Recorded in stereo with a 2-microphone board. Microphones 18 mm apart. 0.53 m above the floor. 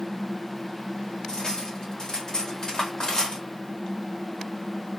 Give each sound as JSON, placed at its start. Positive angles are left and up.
{"t": 1.3, "sound": "cutlery clinking", "side_deg": 40, "distance_m": 1.0}